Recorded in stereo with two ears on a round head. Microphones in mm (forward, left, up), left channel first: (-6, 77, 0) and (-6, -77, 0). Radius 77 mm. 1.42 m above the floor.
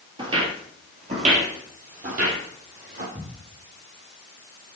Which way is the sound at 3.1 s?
25° right (ahead or behind).